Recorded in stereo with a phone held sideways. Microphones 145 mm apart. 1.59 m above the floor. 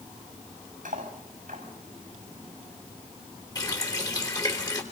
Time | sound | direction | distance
0.8 | cutlery clinking | 65° right (ahead or behind) | 7.5 m
3.5 | a running tap | 25° left (ahead or behind) | 3.5 m